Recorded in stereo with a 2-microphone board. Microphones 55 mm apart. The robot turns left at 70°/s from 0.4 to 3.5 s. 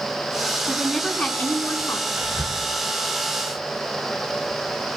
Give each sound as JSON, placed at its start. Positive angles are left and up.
{"t": 0.7, "sound": "a woman speaking", "azimuth_deg": -160, "distance_m": 6.5}
{"t": 2.2, "sound": "whispering", "side_deg": -50, "distance_m": 4.0}